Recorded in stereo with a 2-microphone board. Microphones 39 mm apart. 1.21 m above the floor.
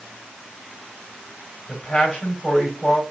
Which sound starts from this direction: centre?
A man speaking, at 1.7 s.